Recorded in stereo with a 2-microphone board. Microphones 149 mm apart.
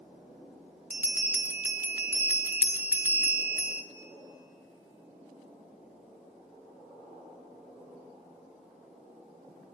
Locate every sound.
0.9 s a bell: 10° right (ahead or behind), 0.9 m